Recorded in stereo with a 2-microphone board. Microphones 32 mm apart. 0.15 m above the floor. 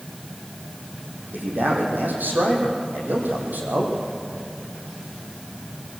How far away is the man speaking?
About 6 m.